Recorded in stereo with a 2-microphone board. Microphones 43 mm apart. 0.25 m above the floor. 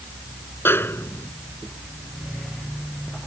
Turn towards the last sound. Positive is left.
turn(degrees=65)  # may be behind; listen again after turning